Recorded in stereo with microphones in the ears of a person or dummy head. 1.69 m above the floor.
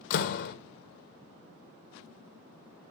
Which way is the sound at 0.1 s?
60° left (ahead or behind).